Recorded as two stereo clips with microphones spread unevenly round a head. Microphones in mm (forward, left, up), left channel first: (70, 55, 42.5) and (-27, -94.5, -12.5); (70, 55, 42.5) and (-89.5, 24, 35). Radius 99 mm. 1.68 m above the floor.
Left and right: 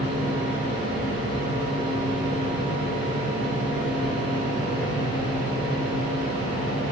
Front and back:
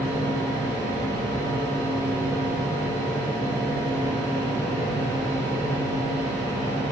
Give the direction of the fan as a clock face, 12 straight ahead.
9 o'clock.